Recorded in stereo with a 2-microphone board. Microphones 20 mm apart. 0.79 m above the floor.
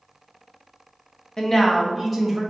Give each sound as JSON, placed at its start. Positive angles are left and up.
{"t": 1.4, "sound": "a woman speaking", "side_deg": 25, "distance_m": 0.6}